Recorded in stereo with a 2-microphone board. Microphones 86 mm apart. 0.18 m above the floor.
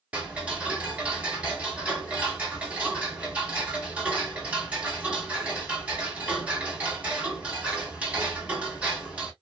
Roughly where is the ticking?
Centre.